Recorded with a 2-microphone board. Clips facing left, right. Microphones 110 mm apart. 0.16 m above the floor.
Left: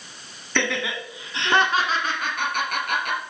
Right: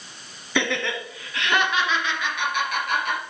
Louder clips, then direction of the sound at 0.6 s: Right 1 dB; 5° right (ahead or behind).